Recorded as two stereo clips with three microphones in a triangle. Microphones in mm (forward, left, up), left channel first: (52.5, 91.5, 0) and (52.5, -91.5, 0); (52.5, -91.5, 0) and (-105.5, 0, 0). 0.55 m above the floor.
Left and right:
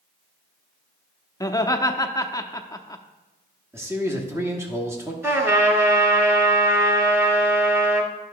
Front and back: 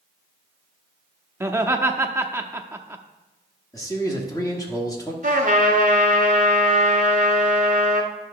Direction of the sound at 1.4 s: 105° left.